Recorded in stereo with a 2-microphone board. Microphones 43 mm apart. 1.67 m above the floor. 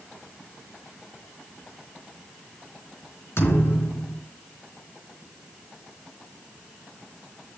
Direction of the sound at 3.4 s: 70° left (ahead or behind).